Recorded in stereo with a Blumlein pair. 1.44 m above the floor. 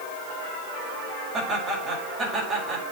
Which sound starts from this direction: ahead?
Laughter, at 1.3 s.